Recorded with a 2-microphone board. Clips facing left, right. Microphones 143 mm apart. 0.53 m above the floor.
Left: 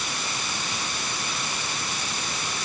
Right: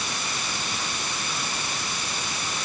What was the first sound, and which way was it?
Only background noise.